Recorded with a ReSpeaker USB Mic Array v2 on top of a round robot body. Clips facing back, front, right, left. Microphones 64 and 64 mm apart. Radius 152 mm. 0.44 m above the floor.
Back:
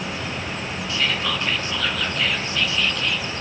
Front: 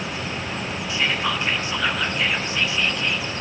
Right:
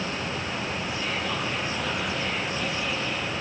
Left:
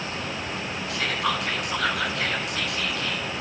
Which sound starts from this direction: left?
Whispering, at 0.9 s.